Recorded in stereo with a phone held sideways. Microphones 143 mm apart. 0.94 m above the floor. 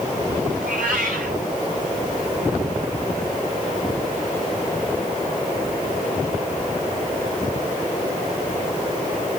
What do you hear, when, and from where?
0.6 s a cat meowing: 70° right (ahead or behind), 4.5 m